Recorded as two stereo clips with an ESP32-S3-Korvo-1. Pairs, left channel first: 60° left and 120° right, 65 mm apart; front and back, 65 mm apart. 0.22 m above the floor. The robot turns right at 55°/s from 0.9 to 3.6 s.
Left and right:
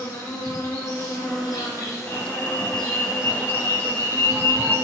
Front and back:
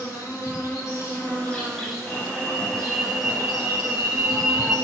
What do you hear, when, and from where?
0.0 s an insect: 35° left, 2 m; by 4.9 s 175° right, 2 m
2.1 s an alarm: 40° left, 1.2 m; by 4.8 s 125° left, 1.2 m